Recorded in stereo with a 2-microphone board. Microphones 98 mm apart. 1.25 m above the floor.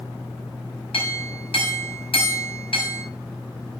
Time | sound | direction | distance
0.9 | a clink | 70° left (ahead or behind) | 5 m